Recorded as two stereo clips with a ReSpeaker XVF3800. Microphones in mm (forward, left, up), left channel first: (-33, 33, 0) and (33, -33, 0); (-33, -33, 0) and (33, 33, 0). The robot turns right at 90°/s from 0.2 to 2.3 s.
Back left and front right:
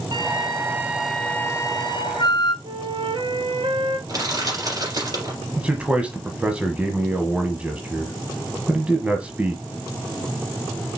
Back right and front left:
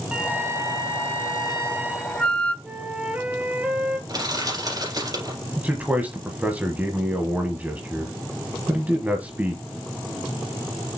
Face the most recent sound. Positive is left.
turn(degrees=10)